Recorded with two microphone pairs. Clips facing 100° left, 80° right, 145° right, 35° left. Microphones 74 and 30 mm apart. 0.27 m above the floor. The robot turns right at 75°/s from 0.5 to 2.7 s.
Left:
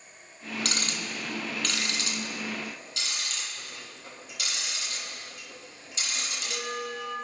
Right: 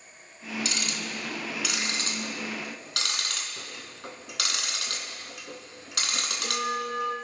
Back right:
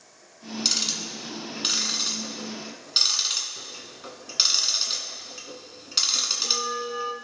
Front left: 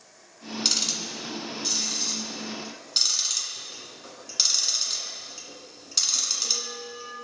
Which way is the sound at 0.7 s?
125° left.